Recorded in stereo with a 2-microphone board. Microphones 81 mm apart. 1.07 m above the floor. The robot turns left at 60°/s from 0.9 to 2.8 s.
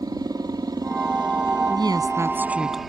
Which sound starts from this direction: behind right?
A woman speaking, at 1.7 s.